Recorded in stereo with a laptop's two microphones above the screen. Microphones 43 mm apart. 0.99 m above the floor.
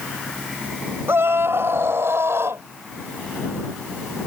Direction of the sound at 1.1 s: 65° right (ahead or behind).